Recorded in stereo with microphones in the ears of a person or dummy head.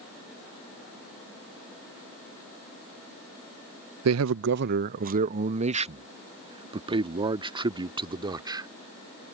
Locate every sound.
4.0 s a man speaking: 75° right (ahead or behind); by 8.7 s 20° right (ahead or behind)